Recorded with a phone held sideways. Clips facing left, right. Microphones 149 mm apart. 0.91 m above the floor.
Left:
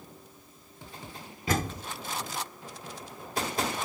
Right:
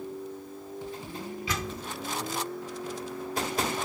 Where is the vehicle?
75° right (ahead or behind).